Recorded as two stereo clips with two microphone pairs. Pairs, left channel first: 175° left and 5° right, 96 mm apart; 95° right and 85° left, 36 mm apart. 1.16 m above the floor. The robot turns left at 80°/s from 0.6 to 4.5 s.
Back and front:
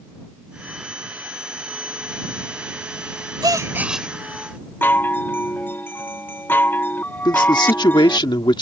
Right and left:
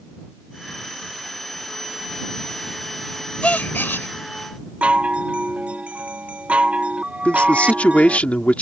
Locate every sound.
3.4 s a gasp: 45° right; by 4.1 s 100° right
4.8 s a chime: 115° left
7.2 s a man speaking: 150° right